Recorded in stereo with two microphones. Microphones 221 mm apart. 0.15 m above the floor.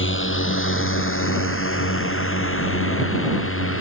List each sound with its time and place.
0.0 s a drone: 60° left (ahead or behind); by 3.8 s 70° left (ahead or behind)